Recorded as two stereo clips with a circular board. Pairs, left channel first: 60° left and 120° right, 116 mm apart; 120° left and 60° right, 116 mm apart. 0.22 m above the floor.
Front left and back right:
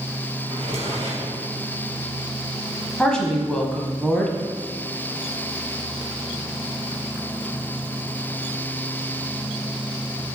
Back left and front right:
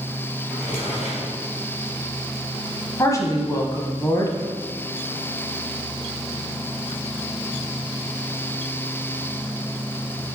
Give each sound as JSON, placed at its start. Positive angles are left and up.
{"t": 0.5, "sound": "a drawer", "azimuth_deg": -165, "distance_m": 3.0}
{"t": 3.0, "sound": "a woman speaking", "azimuth_deg": 135, "distance_m": 1.0}